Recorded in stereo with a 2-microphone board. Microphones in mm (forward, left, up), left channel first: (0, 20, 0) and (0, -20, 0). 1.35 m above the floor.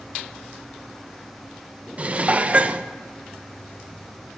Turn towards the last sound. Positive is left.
turn(degrees=-35)  # may be behind; listen again after turning